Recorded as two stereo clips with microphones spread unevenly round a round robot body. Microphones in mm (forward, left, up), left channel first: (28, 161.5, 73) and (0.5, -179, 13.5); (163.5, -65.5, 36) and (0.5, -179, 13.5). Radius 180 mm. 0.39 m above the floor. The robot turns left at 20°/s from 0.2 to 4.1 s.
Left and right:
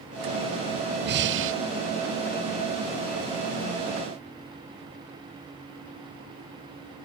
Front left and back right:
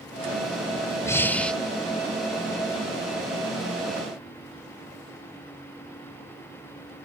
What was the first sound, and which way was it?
Breathing, 45° right.